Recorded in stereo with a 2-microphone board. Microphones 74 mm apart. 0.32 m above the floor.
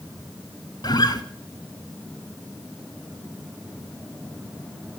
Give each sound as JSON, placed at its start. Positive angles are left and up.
{"t": 0.8, "sound": "a guitar", "side_deg": 65, "distance_m": 0.8}